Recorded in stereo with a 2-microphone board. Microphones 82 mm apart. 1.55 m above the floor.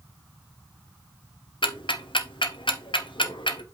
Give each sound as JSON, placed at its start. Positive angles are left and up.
{"t": 1.6, "sound": "ticking", "side_deg": 80, "distance_m": 1.0}